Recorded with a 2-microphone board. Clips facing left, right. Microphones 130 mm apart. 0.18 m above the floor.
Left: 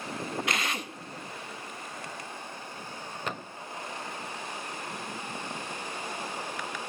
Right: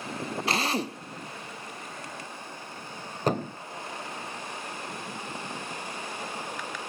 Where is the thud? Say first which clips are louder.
Right 12 dB; 40° right (ahead or behind), 0.8 m.